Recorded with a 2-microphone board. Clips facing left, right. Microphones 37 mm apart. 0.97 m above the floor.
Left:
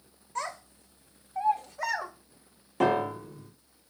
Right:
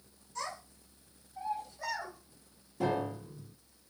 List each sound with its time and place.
0.3 s a child speaking: 45° left (ahead or behind), 2.5 m; by 2.1 s 70° left (ahead or behind), 1.6 m
2.8 s a piano: 65° left (ahead or behind), 1.0 m